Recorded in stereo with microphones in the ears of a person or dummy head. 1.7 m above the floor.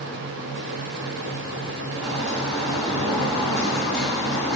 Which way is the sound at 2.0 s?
5° left (ahead or behind).